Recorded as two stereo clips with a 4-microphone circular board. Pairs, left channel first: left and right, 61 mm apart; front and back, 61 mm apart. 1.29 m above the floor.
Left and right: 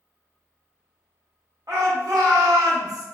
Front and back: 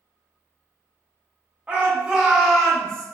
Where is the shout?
115° right, 1.4 m; by 3.0 s 70° right, 0.9 m.